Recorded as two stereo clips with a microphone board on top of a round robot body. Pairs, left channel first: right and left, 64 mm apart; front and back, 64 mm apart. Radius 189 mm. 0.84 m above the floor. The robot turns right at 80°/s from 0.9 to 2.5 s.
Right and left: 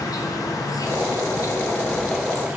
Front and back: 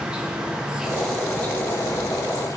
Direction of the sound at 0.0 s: 105° right.